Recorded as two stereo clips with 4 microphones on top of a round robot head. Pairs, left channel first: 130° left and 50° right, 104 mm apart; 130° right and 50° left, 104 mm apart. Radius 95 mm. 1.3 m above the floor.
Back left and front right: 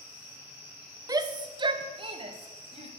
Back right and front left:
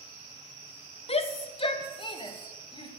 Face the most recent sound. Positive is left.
turn(degrees=-80)